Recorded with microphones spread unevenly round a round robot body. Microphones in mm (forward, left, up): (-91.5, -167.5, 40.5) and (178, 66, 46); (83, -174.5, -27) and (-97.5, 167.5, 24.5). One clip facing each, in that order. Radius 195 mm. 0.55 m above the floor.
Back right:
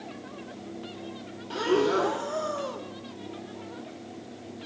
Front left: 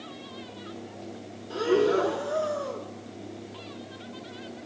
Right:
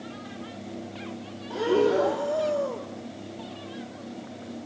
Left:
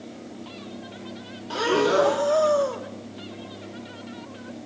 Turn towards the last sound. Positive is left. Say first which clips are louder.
# front left 2 dB, even
turn(degrees=160)